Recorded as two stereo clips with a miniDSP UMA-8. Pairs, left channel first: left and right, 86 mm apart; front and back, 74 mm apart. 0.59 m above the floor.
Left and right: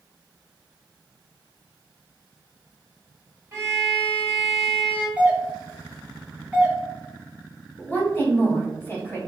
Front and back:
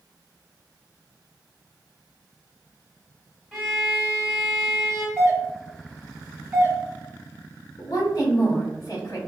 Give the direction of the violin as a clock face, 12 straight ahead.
3 o'clock.